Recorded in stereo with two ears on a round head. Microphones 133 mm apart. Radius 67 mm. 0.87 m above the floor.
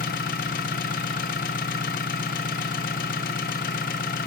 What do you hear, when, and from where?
0.0 s an engine running: 65° left (ahead or behind), 0.9 m